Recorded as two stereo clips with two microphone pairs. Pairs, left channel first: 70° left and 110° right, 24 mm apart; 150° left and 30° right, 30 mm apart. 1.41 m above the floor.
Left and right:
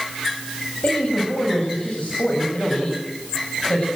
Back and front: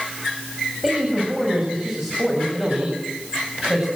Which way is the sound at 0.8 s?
50° left.